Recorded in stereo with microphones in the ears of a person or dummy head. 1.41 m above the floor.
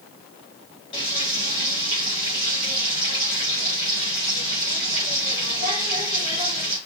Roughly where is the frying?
Left.